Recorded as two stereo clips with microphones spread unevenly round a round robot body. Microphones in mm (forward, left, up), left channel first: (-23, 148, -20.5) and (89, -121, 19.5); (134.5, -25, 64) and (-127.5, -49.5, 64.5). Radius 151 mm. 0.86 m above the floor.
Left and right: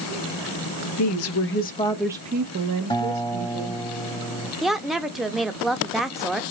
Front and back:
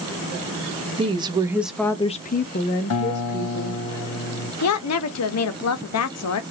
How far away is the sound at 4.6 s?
About 0.8 m.